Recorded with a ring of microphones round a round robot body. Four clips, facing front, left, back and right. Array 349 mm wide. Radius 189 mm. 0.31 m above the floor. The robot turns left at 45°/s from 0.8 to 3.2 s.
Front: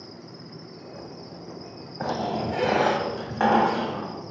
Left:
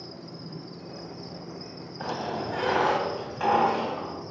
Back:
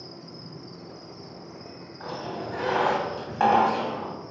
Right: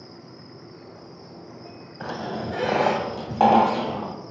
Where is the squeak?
10° right, 1.8 m; by 4.2 s 65° right, 1.8 m.